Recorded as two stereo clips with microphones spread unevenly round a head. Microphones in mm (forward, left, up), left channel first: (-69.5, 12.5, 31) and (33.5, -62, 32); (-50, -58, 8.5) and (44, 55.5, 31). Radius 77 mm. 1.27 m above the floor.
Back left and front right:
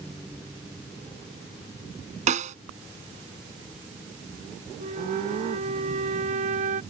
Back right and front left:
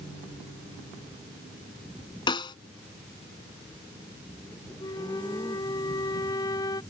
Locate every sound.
2.3 s a snare drum: 65° right
4.8 s a flute: 65° right